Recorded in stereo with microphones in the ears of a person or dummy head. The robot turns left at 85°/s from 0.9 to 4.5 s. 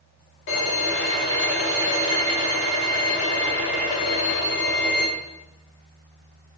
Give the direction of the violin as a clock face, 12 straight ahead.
10 o'clock.